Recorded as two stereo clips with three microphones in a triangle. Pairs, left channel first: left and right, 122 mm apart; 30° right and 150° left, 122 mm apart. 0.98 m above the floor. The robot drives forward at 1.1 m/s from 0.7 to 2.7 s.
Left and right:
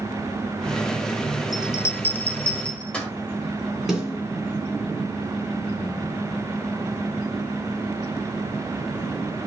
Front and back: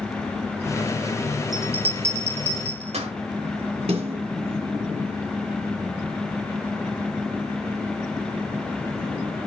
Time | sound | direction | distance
1.5 | a bell | 125° left | 0.5 m
3.9 | a snare drum | straight behind | 3 m